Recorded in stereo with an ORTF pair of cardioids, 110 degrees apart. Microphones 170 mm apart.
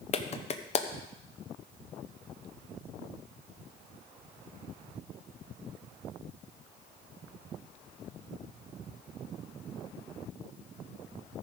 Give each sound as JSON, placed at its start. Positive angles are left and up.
{"t": 0.1, "sound": "a clap", "azimuth_deg": 40, "distance_m": 1.0}